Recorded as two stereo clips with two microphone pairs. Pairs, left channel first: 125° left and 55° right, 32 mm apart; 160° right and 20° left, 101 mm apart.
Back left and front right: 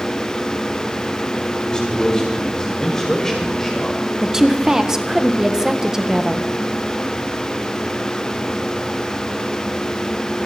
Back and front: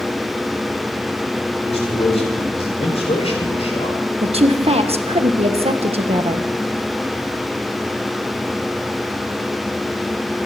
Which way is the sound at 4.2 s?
20° left.